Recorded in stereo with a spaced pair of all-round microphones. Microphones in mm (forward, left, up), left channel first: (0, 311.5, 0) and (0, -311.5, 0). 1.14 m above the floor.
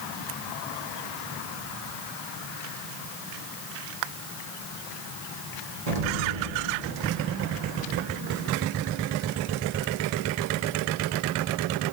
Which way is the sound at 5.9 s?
75° right (ahead or behind).